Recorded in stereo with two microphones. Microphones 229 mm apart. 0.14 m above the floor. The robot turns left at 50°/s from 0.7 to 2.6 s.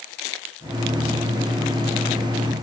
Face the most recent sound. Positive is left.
No sound to turn to.